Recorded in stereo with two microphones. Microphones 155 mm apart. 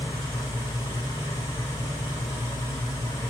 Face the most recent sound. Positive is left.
turn(degrees=20)  # may be behind; listen again after turning